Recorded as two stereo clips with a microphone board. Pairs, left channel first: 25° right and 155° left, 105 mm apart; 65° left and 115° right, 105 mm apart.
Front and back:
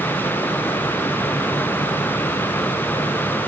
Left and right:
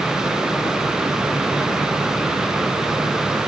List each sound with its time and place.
Only background noise.